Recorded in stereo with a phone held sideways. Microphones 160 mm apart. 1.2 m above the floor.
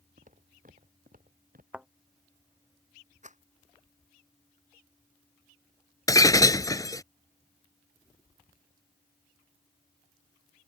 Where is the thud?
5° right (ahead or behind).